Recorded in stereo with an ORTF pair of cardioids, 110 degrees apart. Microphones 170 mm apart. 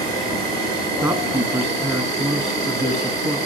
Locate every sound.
0.0 s an insect: 65° right, 5 m
1.0 s a woman speaking: 25° right, 3 m